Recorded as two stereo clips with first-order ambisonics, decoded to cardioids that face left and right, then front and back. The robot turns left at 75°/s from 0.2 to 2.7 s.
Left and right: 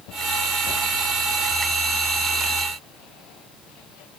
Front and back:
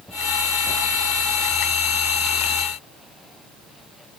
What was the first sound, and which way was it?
Only background noise.